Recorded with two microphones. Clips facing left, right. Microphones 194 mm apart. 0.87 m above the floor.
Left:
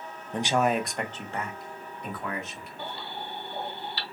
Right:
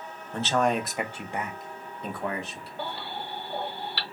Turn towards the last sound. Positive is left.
turn(degrees=-70)  # may be behind; listen again after turning